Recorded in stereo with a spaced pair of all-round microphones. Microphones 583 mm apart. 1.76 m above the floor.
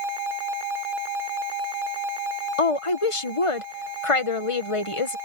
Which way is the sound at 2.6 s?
60° left (ahead or behind).